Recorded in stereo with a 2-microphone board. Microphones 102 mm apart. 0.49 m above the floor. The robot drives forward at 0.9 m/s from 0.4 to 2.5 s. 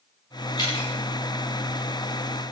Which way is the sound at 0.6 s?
45° left (ahead or behind).